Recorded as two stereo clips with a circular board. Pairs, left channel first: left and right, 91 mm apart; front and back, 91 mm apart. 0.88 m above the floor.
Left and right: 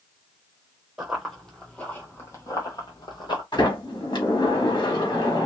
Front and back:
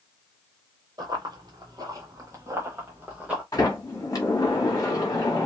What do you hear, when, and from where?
1.0 s running footsteps: 170° right, 1.3 m; by 3.4 s 110° left, 1.6 m
3.5 s a sliding door: 50° left, 1.2 m